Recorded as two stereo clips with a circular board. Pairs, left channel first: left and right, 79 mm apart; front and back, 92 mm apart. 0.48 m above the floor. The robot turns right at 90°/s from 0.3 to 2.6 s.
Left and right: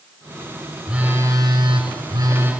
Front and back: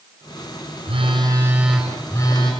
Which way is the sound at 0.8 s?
175° right.